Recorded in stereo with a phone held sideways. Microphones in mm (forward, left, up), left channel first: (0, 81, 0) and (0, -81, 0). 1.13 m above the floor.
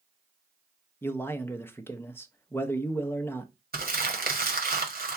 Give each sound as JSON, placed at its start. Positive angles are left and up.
{"t": 1.0, "sound": "a man speaking", "side_deg": 15, "distance_m": 0.6}
{"t": 3.7, "sound": "crumpling", "side_deg": -80, "distance_m": 1.3}